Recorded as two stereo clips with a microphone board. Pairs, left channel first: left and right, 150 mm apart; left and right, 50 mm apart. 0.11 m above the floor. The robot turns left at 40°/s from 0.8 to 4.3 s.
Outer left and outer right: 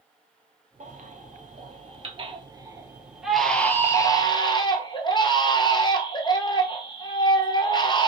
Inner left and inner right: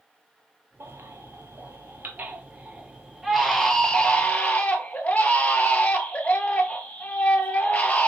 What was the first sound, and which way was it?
A baby crying, 80° right.